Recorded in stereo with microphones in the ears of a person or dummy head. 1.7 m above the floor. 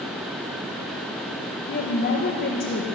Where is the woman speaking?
45° left (ahead or behind), 2 m.